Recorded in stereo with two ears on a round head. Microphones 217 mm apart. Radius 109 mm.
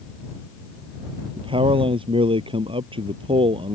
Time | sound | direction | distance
1.4 | a man speaking | 20° right (ahead or behind) | ?